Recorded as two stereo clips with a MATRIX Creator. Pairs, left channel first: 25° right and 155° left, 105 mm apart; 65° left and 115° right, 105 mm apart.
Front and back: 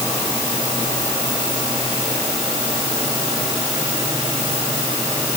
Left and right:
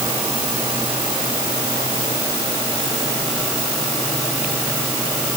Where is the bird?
No bird in this recording.